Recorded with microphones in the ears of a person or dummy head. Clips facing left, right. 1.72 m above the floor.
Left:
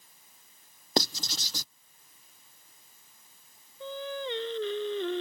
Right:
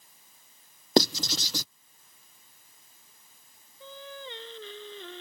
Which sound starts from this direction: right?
Writing, at 1.0 s.